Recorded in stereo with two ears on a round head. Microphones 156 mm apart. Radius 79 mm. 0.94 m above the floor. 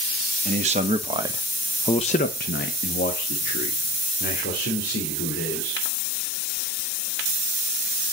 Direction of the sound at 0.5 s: 40° right (ahead or behind).